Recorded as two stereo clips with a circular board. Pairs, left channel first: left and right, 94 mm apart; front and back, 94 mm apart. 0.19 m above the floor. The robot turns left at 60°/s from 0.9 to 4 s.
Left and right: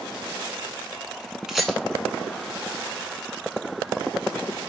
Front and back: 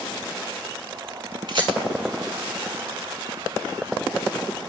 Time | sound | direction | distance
1.5 | a rattle | 170° right | 0.7 m